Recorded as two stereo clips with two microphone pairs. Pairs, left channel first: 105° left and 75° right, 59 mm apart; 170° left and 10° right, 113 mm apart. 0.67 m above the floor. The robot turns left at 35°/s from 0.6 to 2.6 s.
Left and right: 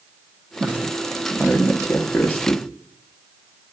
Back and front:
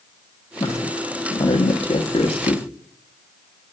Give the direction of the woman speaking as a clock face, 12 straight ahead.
5 o'clock.